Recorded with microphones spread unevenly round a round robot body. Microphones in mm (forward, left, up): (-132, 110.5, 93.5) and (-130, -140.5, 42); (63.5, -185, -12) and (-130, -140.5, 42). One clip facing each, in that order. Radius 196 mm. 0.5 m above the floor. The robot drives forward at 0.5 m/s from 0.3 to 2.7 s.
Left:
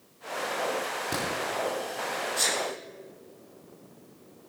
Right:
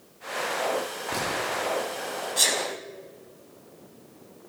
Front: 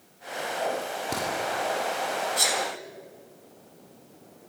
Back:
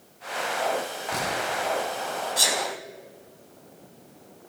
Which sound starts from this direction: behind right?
A sneeze, at 2.4 s.